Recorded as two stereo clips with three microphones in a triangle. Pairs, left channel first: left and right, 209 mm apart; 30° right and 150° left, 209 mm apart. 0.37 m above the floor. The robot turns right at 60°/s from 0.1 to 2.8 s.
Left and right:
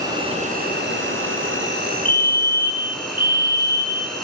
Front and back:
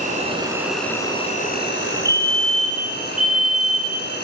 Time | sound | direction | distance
0.0 | an insect | 160° right | 2 m
2.0 | a fire alarm | 20° left | 2.0 m